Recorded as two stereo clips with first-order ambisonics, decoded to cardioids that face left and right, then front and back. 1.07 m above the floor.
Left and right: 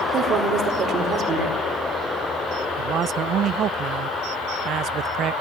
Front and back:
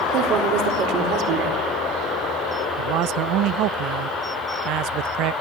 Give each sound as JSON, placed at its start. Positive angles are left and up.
{"t": 0.1, "sound": "a woman speaking", "azimuth_deg": -150, "distance_m": 4.0}
{"t": 2.8, "sound": "a man speaking", "azimuth_deg": -145, "distance_m": 0.6}